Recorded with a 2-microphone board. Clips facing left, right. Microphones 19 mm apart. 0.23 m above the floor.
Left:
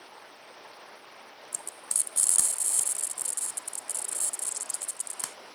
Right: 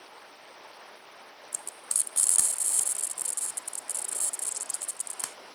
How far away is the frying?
About 0.8 m.